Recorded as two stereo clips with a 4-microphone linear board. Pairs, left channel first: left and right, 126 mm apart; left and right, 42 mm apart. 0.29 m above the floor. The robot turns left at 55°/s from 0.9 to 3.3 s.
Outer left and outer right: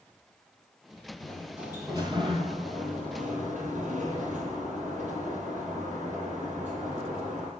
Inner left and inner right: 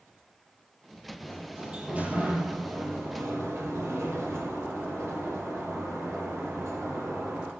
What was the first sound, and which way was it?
A sliding door, 15° left.